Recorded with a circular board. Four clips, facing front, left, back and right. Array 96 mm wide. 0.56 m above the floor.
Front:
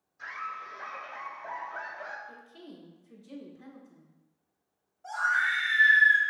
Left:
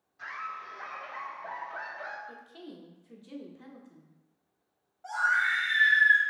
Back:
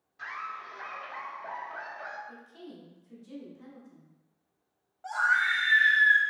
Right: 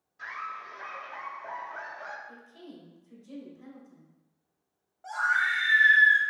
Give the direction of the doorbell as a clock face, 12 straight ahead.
I don't hear a doorbell.